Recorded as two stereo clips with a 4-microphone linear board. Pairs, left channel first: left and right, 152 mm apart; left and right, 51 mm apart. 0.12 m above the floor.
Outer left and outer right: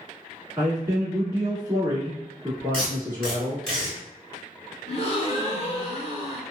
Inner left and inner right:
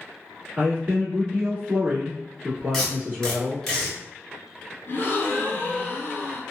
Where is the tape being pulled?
5° left (ahead or behind), 1.7 m.